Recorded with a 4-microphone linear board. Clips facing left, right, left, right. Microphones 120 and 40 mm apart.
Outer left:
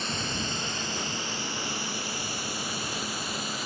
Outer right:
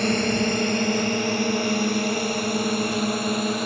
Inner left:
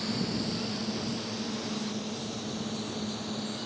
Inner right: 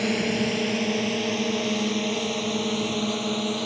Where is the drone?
60° right (ahead or behind).